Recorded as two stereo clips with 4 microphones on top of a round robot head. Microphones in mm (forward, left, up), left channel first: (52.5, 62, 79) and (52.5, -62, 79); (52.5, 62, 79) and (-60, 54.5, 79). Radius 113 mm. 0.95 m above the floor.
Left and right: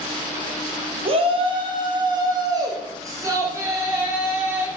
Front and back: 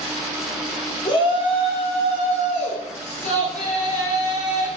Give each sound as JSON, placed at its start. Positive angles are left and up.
{"t": 1.1, "sound": "a shout", "azimuth_deg": -50, "distance_m": 3.5}